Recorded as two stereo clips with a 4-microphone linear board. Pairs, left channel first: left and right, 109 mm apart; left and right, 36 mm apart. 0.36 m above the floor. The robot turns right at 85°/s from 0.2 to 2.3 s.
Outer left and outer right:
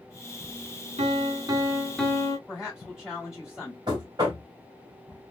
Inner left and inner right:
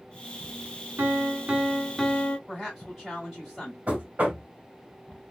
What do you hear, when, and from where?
1.0 s a piano: 80° right, 0.7 m; by 2.4 s 35° left, 0.7 m
2.5 s a woman speaking: 5° right (ahead or behind), 1.8 m
3.9 s knocking: 40° right (ahead or behind), 1.3 m